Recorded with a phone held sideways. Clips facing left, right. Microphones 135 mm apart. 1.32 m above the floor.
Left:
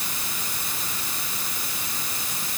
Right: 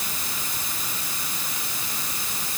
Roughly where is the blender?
I don't hear a blender.